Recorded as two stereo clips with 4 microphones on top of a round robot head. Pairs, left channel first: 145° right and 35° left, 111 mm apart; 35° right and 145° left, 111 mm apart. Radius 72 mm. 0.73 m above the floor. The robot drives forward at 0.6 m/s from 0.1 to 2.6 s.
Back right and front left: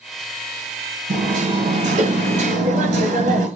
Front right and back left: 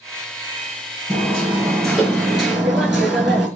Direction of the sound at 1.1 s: 50° left.